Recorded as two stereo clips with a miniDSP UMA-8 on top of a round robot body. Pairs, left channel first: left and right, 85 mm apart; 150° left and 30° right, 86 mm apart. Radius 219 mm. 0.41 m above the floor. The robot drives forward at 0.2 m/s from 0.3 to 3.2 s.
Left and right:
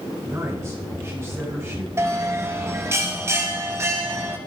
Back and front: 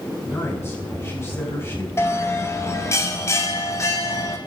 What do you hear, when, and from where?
0.2 s a woman speaking: 150° right, 7.5 m
2.0 s a bell: 150° right, 2.5 m